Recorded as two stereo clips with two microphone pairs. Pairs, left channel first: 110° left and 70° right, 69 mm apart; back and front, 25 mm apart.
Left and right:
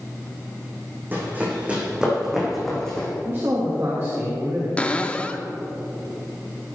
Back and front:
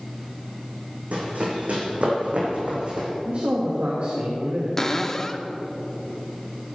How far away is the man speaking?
About 2 m.